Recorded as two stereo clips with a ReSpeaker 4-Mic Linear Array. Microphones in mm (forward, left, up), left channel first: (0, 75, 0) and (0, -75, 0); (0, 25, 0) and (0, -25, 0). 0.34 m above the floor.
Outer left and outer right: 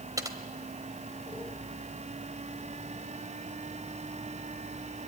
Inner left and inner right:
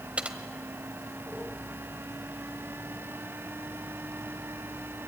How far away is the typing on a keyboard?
About 1.3 m.